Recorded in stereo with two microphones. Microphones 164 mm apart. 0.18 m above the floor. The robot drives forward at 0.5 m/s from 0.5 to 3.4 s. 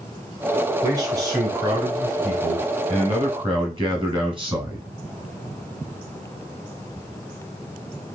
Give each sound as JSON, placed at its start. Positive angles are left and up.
{"t": 0.8, "sound": "a man speaking", "side_deg": -20, "distance_m": 2.5}